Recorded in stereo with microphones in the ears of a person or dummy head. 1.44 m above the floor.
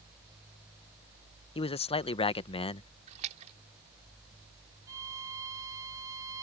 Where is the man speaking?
30° left (ahead or behind).